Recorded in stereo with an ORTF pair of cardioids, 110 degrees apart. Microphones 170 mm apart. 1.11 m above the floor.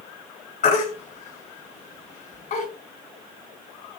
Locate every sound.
0.6 s a baby crying: 45° left, 4.5 m